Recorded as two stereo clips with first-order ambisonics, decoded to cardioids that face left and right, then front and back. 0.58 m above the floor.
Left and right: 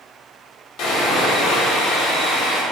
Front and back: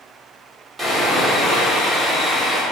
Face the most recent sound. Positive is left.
turn(degrees=95)